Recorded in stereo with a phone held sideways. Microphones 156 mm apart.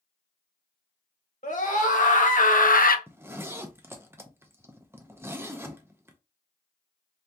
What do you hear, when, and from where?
1.4 s a scream: 55° left (ahead or behind), 1.4 m; by 3.0 s 65° left (ahead or behind), 0.5 m
3.1 s a zipper: 15° right (ahead or behind), 0.5 m